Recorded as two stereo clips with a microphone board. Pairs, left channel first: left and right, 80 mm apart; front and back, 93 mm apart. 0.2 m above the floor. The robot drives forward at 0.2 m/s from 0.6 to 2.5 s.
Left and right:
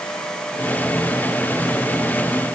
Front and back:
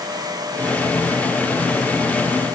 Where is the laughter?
No laughter in this recording.